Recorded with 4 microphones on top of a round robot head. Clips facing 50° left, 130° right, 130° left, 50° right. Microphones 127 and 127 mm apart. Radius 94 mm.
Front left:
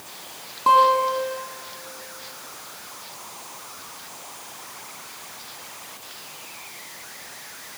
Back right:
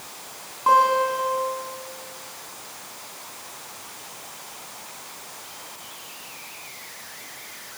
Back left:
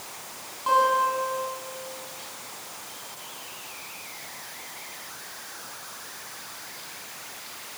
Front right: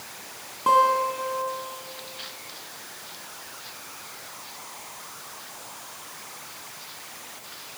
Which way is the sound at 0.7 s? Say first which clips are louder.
Front left 1 dB, front right 2 dB; 15° right.